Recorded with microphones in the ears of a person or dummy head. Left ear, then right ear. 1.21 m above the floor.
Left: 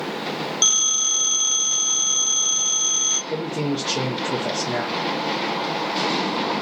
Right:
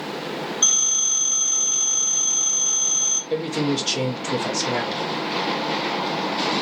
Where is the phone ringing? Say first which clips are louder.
Left 1 dB; 45° left (ahead or behind), 1.5 m.